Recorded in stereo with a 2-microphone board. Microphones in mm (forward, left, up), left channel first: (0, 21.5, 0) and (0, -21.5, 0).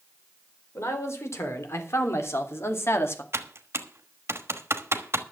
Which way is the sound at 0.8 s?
85° left.